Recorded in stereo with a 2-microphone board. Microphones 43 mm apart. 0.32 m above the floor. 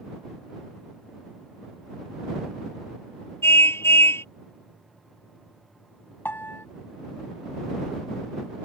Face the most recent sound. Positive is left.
turn(degrees=55)  # may be behind; listen again after turning